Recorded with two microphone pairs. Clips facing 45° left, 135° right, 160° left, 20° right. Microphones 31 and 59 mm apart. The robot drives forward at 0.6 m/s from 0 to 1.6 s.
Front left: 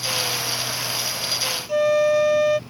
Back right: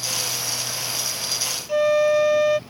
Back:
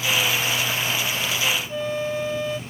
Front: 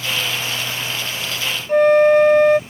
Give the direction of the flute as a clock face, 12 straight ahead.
1 o'clock.